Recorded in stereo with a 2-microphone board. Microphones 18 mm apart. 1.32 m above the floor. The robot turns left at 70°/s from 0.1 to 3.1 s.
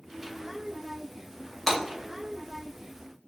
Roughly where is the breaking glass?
Centre.